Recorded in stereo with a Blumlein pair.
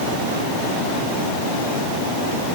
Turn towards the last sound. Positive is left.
No sound to turn to.